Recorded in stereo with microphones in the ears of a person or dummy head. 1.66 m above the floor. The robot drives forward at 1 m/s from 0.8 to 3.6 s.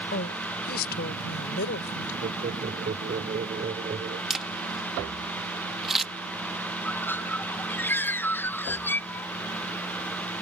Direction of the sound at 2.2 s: 40° right (ahead or behind).